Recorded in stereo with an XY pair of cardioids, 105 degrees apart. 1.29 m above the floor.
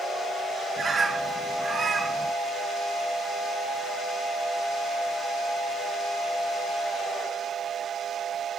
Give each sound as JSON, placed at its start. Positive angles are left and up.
{"t": 0.8, "sound": "a bird", "azimuth_deg": -30, "distance_m": 0.6}